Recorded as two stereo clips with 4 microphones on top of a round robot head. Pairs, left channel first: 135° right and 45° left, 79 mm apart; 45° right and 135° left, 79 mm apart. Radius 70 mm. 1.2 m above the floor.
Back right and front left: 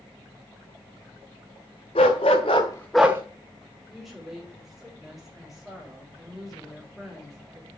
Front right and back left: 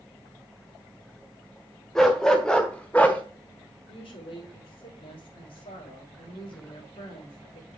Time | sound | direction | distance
1.9 | a dog barking | 130° right | 1.4 m
3.9 | a woman speaking | 45° right | 4.5 m